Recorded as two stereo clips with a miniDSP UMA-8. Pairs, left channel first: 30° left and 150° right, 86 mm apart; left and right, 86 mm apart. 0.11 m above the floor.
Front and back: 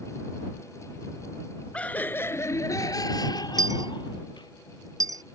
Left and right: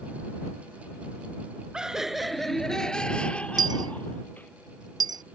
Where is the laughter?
25° right; by 4.5 s 25° left.